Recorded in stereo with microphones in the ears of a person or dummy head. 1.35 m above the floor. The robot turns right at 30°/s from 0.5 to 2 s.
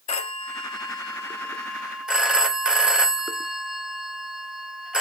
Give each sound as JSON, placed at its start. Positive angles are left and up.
{"t": 0.1, "sound": "a phone ringing", "azimuth_deg": 140, "distance_m": 0.6}